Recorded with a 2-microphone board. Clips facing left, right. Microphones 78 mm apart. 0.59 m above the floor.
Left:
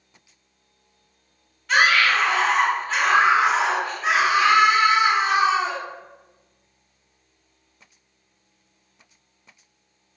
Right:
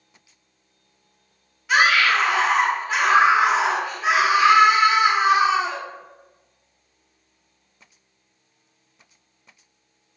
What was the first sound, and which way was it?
A scream, 5° right (ahead or behind).